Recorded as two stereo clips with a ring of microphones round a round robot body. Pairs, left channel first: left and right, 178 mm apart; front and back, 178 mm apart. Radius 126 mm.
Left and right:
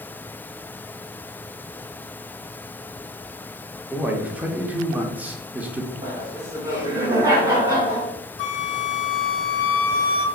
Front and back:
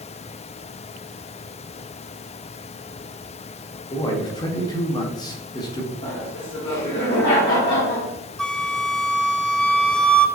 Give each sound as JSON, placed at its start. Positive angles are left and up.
{"t": 3.9, "sound": "a man speaking", "azimuth_deg": -20, "distance_m": 0.8}
{"t": 6.0, "sound": "laughter", "azimuth_deg": -25, "distance_m": 1.2}
{"t": 8.4, "sound": "a flute", "azimuth_deg": 85, "distance_m": 0.5}